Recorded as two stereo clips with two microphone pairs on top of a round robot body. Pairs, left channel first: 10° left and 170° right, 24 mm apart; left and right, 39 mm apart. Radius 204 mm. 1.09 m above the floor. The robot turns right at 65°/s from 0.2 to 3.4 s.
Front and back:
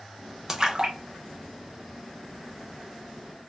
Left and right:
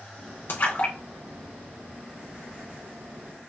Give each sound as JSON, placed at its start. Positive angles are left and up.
{"t": 0.5, "sound": "a splash", "azimuth_deg": 120, "distance_m": 1.0}